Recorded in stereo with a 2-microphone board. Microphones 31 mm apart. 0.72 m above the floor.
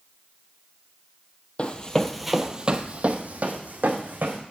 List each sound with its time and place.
1.6 s running footsteps: 40° left (ahead or behind), 0.9 m; by 4.4 s 60° right (ahead or behind), 2 m